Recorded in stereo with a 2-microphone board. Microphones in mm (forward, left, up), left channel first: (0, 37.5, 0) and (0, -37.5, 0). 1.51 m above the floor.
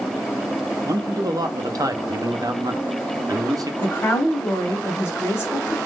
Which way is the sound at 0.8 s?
55° right (ahead or behind).